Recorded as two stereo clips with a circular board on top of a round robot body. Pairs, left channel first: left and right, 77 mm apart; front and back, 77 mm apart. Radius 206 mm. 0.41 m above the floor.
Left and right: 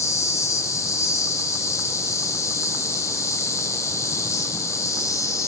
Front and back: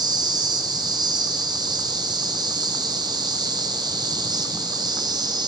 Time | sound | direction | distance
0.0 | an insect | 145° left | 0.7 m